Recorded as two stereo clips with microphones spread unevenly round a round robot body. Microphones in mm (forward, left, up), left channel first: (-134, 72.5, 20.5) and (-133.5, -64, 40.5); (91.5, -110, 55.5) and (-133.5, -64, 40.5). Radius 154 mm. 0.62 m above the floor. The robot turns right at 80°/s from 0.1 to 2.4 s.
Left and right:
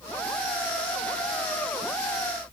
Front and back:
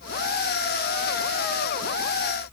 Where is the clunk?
I don't hear a clunk.